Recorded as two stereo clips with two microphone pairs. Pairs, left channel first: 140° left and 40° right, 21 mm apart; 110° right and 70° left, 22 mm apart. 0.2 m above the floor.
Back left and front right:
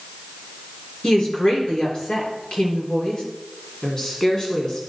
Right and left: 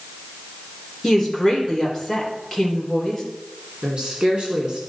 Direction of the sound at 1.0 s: 170° left.